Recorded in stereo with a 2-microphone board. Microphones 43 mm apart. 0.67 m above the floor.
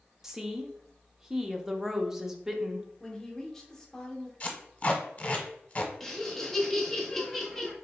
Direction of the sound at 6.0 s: 10° left (ahead or behind).